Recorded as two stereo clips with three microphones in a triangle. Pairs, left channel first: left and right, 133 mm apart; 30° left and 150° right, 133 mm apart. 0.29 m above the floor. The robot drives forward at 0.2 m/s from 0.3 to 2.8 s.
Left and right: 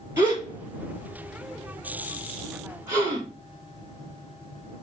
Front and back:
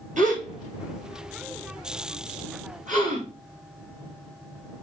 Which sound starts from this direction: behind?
A gasp, at 0.2 s.